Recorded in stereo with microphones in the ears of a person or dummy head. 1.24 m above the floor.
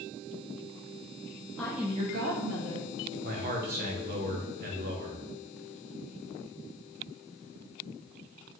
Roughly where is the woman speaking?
Centre.